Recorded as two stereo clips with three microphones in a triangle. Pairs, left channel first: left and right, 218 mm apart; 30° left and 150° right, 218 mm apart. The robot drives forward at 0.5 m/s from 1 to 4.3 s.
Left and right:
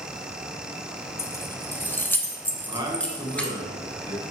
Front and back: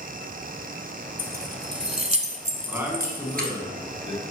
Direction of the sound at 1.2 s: 145° left.